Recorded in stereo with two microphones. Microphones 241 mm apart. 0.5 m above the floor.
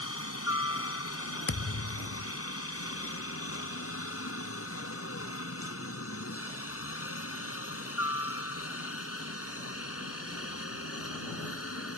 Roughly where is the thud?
Left.